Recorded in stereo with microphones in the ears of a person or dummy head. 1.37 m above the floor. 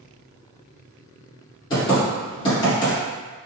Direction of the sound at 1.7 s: 20° left (ahead or behind).